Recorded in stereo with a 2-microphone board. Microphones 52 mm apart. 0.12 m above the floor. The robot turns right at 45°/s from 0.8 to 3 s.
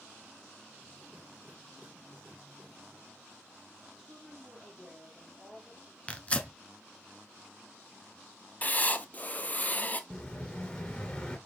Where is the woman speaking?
15° right (ahead or behind), 2.5 m.